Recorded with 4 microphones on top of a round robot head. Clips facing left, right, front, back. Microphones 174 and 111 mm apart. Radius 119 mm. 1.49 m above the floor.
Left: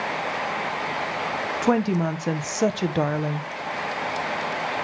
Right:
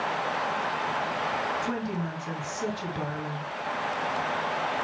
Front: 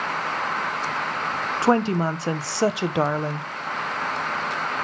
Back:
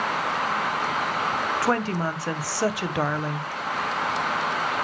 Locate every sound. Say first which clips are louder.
1.6 s a woman speaking: left 10 dB, front 8 dB; 65° left, 0.7 m